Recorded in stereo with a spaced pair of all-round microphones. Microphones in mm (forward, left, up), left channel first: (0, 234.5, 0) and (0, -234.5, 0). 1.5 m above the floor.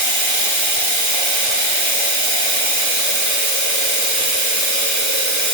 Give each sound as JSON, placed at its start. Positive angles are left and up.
{"t": 0.0, "sound": "running water", "side_deg": -35, "distance_m": 1.0}